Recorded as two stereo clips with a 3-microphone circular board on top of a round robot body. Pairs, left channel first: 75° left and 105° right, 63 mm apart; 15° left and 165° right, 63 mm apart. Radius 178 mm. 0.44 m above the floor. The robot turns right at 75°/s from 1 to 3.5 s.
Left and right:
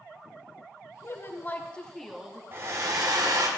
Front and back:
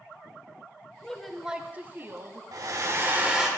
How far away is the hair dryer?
About 1.5 m.